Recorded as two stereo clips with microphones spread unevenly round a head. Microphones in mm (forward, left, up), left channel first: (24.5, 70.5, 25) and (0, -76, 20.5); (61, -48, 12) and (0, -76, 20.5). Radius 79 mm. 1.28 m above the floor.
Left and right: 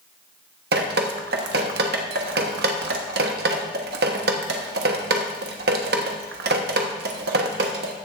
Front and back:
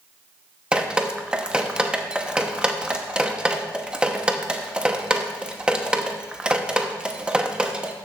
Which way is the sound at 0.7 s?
85° right.